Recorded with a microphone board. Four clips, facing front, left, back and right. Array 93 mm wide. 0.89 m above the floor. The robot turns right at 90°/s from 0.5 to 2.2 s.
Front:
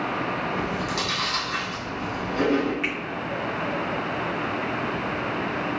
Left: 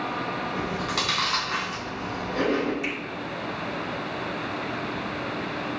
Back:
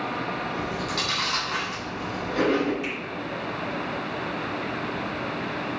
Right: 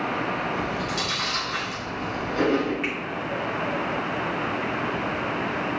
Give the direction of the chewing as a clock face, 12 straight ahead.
11 o'clock.